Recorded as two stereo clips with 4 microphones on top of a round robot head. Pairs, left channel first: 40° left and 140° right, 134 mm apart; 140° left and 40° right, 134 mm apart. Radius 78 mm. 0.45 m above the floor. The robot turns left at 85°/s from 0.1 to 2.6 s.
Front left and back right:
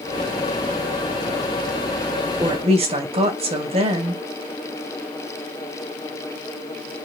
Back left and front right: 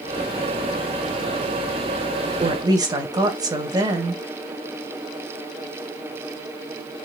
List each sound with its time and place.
2.4 s a woman speaking: 80° right, 2 m; by 4.2 s 100° right, 2 m